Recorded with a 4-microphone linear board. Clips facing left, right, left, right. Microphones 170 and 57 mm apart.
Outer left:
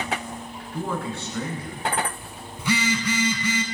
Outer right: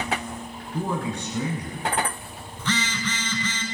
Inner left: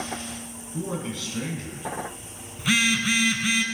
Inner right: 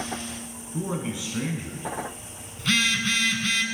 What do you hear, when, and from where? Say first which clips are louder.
0.7 s a man speaking: outer right 1 dB, inner right 1 dB; 15° right (ahead or behind), 1.2 m
2.6 s a phone buzzing: outer left 4 dB, inner left 1 dB; 10° left (ahead or behind), 0.6 m